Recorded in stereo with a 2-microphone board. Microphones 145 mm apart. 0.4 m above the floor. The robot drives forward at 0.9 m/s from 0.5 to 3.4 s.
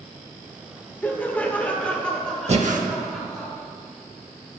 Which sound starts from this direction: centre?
Laughter, at 1.0 s.